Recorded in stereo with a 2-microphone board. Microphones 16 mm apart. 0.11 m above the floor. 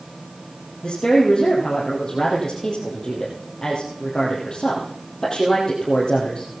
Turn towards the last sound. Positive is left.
turn(degrees=35)  # may be behind; listen again after turning